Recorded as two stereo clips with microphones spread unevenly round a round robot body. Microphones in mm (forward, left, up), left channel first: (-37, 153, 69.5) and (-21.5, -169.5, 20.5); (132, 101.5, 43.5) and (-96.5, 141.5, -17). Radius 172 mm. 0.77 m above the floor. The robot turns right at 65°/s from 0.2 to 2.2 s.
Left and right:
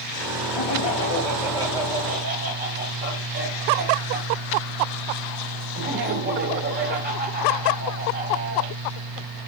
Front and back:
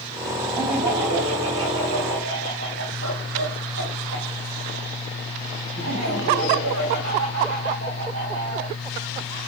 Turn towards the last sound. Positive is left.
turn(degrees=-145)